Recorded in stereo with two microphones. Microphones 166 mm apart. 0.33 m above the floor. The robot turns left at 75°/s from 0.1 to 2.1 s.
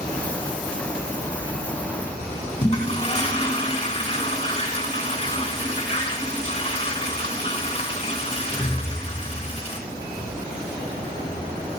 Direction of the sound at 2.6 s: 40° left (ahead or behind).